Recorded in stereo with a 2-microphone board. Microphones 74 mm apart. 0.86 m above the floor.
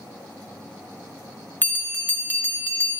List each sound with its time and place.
1.6 s a bell: 25° left (ahead or behind), 0.9 m